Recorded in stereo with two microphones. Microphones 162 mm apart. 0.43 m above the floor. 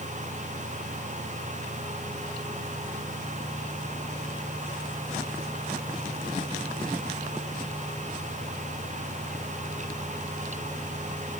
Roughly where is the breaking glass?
No breaking glass in this recording.